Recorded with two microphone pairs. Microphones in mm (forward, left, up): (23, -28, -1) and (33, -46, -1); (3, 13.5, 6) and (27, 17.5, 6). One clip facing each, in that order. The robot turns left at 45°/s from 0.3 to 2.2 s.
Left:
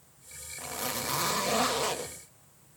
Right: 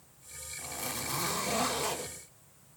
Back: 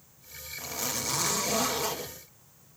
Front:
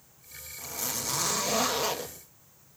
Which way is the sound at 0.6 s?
120° left.